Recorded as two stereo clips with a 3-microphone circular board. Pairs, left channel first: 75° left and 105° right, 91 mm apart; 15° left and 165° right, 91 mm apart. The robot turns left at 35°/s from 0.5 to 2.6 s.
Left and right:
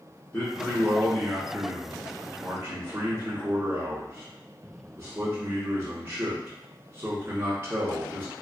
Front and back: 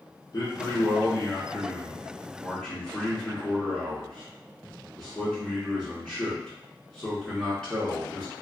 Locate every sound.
0.3 s a man speaking: 10° left, 1.4 m; by 8.3 s 65° right, 1.4 m